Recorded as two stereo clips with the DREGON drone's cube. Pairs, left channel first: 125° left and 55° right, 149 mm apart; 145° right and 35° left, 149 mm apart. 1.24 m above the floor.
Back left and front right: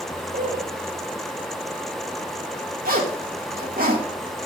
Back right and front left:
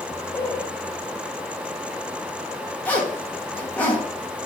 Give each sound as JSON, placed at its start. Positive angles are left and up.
{"t": 0.3, "sound": "a man speaking", "azimuth_deg": -80, "distance_m": 4.0}
{"t": 2.9, "sound": "a zipper", "azimuth_deg": -65, "distance_m": 1.9}